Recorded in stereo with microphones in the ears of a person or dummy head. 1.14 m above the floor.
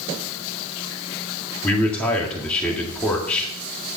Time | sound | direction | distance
1.6 | a man speaking | 5° left (ahead or behind) | 1.9 m